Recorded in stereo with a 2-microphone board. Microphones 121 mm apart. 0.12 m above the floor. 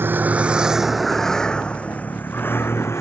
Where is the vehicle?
20° right (ahead or behind); by 3.0 s 20° left (ahead or behind).